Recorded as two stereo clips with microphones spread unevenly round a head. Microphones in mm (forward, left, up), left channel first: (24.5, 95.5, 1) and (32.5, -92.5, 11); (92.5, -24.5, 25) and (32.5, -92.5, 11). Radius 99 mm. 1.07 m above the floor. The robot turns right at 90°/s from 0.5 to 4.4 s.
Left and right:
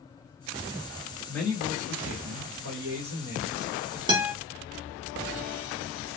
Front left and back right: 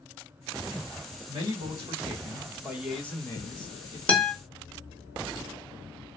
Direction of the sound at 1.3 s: 170° left.